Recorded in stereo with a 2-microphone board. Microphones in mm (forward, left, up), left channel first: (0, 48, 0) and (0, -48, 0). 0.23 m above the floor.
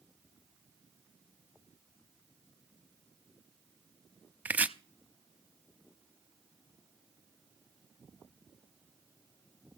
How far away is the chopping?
About 0.6 m.